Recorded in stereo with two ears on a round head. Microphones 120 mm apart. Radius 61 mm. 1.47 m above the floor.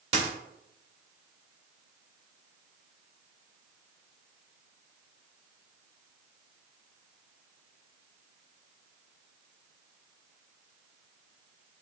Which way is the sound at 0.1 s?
50° right (ahead or behind).